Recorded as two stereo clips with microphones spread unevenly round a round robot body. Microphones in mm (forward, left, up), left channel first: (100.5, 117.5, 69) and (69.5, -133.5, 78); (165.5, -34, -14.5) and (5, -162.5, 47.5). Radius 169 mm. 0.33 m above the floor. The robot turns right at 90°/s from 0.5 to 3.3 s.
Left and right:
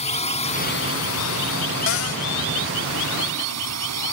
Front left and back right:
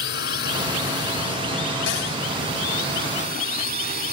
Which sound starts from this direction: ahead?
A drone, at 0.0 s.